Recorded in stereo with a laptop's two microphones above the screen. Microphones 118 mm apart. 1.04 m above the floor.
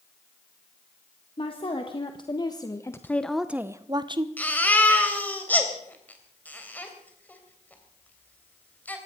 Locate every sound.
1.4 s a woman speaking: 45° left (ahead or behind), 1.8 m; by 4.3 s 45° right (ahead or behind), 0.9 m
4.4 s a baby crying: 15° left (ahead or behind), 3 m